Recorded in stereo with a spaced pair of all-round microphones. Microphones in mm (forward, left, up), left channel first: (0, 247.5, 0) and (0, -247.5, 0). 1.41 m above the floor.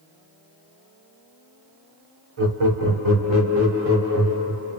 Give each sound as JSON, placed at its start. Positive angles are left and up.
{"t": 2.4, "sound": "laughter", "side_deg": -75, "distance_m": 1.0}